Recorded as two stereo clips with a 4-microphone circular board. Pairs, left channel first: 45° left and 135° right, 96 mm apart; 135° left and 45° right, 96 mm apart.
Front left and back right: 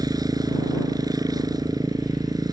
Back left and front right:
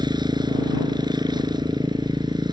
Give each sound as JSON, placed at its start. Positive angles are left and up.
{"t": 0.0, "sound": "a motorcycle", "azimuth_deg": -90}